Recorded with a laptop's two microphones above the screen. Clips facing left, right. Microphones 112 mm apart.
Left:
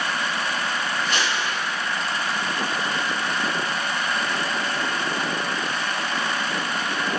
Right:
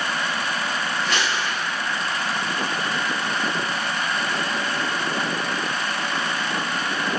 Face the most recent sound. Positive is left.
turn(degrees=-75)  # may be behind; listen again after turning